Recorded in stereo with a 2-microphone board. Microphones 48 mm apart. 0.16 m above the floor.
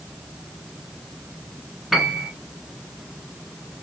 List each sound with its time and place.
1.9 s a piano: 5° right (ahead or behind), 1.8 m